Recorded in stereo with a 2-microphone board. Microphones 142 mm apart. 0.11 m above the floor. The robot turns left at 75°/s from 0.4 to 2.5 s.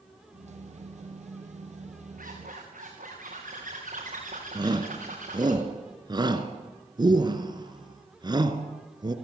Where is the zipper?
85° right, 6 m; by 5.5 s 65° right (ahead or behind), 6 m.